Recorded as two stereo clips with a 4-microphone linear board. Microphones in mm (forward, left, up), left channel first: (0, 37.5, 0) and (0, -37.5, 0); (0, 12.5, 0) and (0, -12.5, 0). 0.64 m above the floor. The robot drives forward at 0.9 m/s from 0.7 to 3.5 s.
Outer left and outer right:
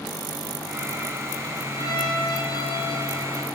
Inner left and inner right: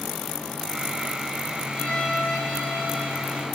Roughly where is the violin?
Left.